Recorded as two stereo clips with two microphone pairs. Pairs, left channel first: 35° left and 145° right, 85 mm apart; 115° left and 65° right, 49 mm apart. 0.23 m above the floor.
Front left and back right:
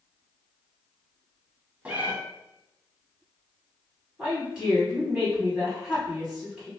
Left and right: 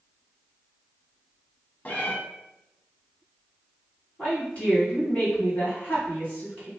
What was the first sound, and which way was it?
A cat meowing, 150° left.